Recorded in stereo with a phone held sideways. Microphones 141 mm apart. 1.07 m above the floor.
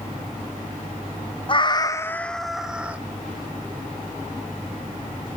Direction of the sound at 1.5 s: 35° left (ahead or behind).